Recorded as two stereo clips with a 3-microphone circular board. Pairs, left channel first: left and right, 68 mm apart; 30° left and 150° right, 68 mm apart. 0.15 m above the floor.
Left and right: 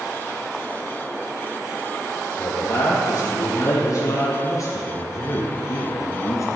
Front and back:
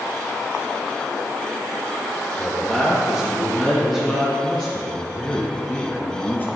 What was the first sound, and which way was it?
A man speaking, 120° left.